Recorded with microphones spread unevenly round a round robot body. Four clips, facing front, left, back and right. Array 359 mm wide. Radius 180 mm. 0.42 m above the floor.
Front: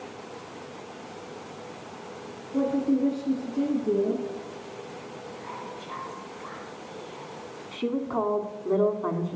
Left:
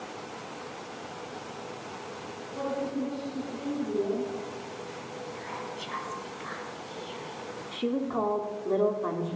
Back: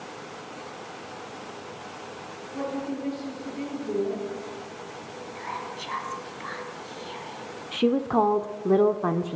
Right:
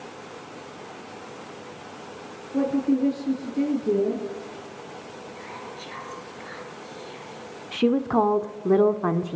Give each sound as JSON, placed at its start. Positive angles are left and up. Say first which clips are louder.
{"t": 2.5, "sound": "a woman speaking", "louder": "right 9 dB, front 7 dB", "azimuth_deg": -60, "distance_m": 8.0}
{"t": 5.3, "sound": "whispering", "louder": "even, back 6 dB", "azimuth_deg": 170, "distance_m": 5.0}
{"t": 7.7, "sound": "a woman speaking", "louder": "right 8 dB, back 6 dB", "azimuth_deg": -120, "distance_m": 1.6}